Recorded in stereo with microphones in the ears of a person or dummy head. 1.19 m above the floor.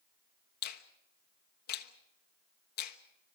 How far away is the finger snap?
About 1.2 m.